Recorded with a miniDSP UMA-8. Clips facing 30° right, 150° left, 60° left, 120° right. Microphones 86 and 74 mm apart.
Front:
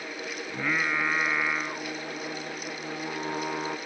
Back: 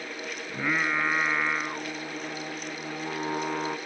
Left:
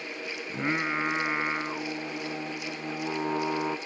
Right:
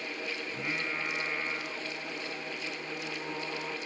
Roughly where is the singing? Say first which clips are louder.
Back 1 dB, left 9 dB; left.